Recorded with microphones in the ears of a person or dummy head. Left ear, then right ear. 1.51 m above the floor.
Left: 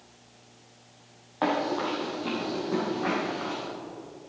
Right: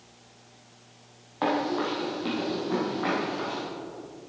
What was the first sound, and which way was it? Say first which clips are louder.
Running footsteps: even; 10° left (ahead or behind).